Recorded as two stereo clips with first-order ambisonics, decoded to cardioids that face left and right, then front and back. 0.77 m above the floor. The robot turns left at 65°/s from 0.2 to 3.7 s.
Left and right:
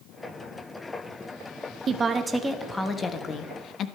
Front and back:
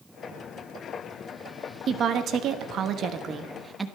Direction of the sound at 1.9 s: 135° right.